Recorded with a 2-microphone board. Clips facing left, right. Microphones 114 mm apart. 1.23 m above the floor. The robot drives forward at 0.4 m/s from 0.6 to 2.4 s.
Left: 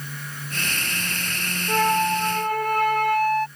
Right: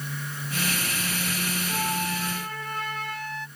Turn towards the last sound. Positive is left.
turn(degrees=55)  # may be behind; listen again after turning